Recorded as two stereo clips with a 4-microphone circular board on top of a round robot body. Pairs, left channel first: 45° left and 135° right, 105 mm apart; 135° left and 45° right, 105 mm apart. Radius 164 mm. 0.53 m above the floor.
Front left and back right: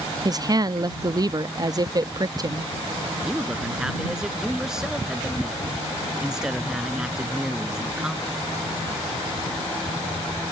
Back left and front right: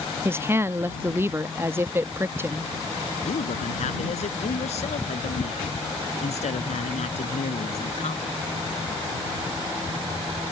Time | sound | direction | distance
0.2 | a woman speaking | 105° right | ?
3.2 | a man speaking | 140° left | ?